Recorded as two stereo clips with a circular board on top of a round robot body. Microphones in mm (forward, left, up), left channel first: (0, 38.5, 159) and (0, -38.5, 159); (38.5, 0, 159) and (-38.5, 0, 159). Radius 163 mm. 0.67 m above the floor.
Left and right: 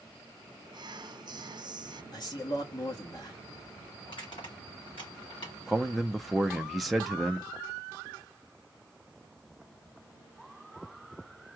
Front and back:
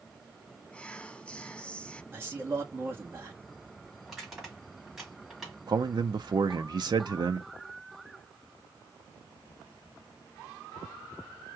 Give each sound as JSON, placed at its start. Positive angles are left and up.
{"t": 0.7, "sound": "whispering", "azimuth_deg": -75, "distance_m": 0.8}
{"t": 2.1, "sound": "a man speaking", "azimuth_deg": 120, "distance_m": 1.7}
{"t": 4.0, "sound": "crushing", "azimuth_deg": 90, "distance_m": 3.5}
{"t": 5.7, "sound": "a man speaking", "azimuth_deg": 180, "distance_m": 0.8}